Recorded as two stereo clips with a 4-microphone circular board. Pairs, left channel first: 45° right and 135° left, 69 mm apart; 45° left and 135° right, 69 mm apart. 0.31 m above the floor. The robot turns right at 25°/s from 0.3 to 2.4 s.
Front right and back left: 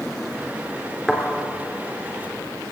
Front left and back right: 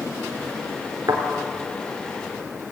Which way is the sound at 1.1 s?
135° right.